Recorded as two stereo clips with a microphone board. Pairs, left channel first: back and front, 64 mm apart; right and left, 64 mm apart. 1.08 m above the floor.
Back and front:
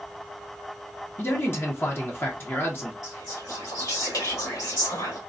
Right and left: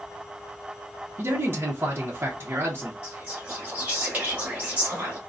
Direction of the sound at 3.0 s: 160° left.